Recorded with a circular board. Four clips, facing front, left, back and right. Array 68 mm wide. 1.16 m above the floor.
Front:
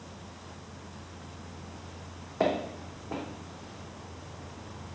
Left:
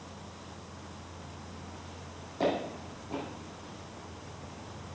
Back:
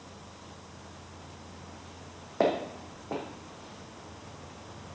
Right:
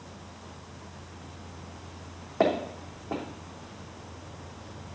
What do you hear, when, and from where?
2.4 s footsteps: 130° right, 3.5 m